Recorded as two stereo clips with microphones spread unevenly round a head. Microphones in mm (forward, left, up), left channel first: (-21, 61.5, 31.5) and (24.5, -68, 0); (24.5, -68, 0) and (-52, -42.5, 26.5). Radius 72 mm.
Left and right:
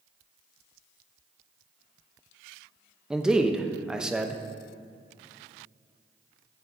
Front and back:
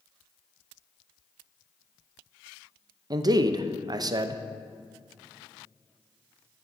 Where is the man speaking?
155° right, 0.5 m.